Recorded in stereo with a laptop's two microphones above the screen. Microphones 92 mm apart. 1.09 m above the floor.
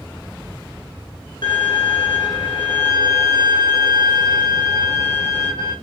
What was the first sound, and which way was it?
A violin, 55° left (ahead or behind).